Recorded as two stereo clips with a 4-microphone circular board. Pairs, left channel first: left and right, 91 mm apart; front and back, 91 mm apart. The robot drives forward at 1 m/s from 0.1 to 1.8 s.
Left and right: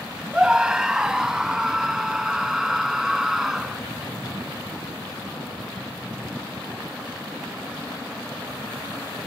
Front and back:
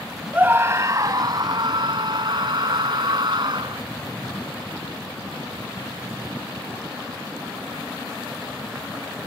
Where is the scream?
150° right; by 3.8 s 175° right.